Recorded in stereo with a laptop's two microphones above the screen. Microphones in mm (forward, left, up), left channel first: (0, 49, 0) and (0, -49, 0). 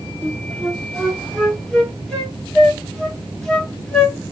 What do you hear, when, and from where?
0.2 s a flute: 5° left (ahead or behind), 1.5 m